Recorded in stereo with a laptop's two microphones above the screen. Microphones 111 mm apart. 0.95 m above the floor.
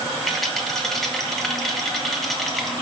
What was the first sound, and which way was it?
A rattle, centre (ahead or behind).